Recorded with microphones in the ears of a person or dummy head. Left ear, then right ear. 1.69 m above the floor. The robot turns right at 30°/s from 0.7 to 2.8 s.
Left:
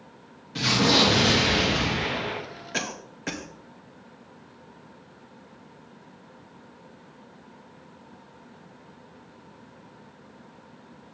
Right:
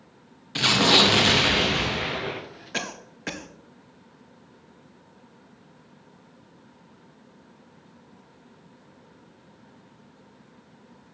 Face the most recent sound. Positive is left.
turn(degrees=-5)  # may be behind; listen again after turning